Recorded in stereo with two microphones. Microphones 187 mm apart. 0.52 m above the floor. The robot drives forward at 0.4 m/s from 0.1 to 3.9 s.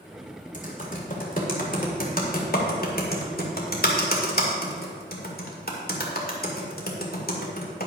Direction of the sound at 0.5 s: 45° left (ahead or behind).